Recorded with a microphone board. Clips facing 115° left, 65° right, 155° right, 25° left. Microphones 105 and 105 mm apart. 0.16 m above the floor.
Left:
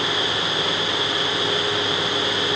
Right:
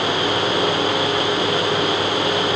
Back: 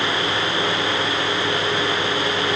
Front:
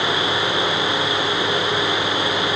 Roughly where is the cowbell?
No cowbell in this recording.